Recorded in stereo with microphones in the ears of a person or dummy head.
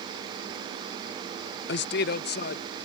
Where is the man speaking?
55° left (ahead or behind); by 2.9 s 50° left (ahead or behind).